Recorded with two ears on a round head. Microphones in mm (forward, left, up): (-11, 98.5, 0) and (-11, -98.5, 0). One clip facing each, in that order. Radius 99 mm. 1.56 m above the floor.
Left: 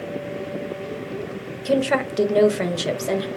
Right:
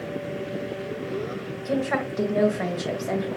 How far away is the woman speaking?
About 0.8 m.